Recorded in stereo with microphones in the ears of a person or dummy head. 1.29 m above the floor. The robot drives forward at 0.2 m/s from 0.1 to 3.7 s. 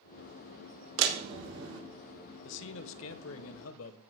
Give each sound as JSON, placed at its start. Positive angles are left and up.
{"t": 1.0, "sound": "a door slam", "side_deg": -80, "distance_m": 2.0}
{"t": 2.4, "sound": "a man speaking", "side_deg": 65, "distance_m": 0.9}